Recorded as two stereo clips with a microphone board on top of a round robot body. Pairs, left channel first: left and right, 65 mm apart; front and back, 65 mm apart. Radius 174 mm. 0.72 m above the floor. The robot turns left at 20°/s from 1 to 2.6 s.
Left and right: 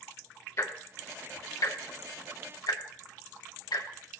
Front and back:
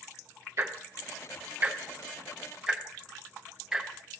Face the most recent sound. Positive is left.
turn(degrees=100)